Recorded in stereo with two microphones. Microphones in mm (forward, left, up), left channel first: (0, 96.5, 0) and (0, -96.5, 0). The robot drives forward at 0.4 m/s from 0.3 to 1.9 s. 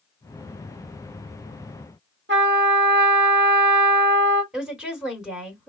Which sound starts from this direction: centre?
A woman speaking, at 4.5 s.